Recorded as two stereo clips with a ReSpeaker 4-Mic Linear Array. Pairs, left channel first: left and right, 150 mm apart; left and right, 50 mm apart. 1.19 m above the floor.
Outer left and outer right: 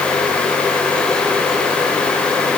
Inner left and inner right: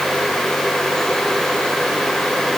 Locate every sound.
Only background noise.